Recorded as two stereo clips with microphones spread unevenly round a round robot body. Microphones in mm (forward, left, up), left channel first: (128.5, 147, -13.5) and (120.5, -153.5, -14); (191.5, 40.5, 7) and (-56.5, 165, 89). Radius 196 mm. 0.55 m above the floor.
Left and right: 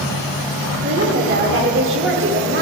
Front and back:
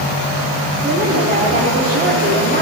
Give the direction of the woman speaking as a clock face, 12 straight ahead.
5 o'clock.